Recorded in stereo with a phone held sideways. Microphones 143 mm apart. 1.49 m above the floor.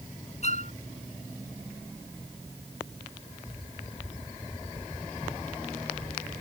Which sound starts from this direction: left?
A violin, at 0.4 s.